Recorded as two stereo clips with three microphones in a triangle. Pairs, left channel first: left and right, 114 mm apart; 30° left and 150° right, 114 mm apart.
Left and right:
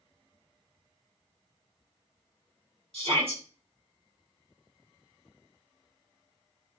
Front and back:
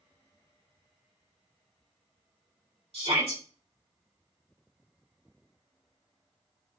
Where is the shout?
125° right, 3 m.